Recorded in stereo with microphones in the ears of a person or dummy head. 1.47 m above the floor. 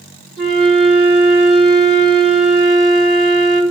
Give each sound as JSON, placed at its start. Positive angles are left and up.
{"t": 0.4, "sound": "a flute", "side_deg": 30, "distance_m": 2.5}